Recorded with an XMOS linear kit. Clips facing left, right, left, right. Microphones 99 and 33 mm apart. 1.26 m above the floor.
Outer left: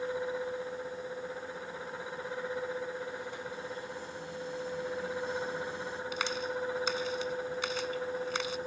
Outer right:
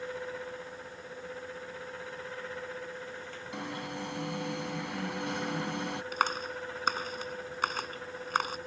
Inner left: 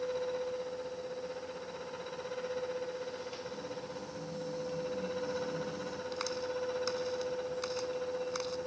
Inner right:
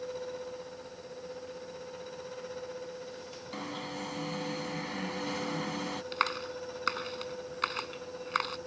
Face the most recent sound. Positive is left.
turn(degrees=-50)  # may be behind; listen again after turning